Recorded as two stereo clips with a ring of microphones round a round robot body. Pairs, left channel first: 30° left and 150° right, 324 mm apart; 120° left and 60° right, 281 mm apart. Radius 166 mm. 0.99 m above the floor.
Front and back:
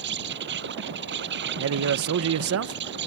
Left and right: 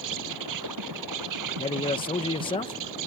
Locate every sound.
0.0 s an insect: 95° right
1.6 s a man speaking: 175° right